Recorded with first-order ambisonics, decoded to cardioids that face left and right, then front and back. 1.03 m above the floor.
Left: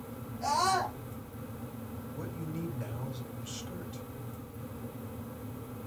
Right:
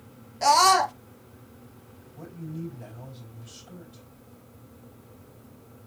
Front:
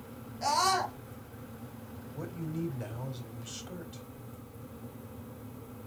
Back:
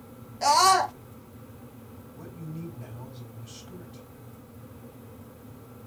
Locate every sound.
0.4 s a scream: 120° right, 0.8 m
2.1 s a man speaking: 30° left, 3.5 m